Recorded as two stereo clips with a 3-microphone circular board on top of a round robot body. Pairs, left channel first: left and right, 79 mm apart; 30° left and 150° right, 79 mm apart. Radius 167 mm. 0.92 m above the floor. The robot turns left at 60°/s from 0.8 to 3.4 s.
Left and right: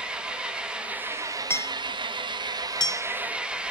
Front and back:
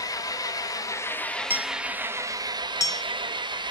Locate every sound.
0.0 s an engine running: 10° right, 1.2 m; by 3.7 s 170° right, 1.2 m
1.5 s hammering: 150° left, 0.9 m; by 3.0 s 55° left, 0.9 m